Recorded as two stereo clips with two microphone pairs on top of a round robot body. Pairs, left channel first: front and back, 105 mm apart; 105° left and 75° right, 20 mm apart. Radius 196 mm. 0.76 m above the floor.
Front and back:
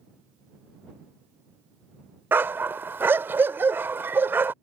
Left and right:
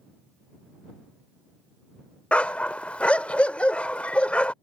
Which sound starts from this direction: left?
A dog barking, at 2.3 s.